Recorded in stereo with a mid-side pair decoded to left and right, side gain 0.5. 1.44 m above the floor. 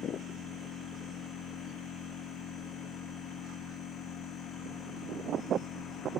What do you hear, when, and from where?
0.0 s a machine running: 60° left, 2 m